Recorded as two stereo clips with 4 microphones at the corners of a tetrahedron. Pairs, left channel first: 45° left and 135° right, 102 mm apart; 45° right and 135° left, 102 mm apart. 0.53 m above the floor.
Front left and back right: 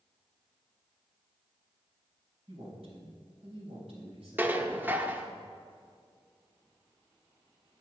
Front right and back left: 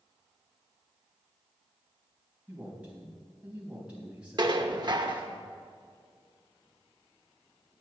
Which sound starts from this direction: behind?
Dishes clattering, at 4.4 s.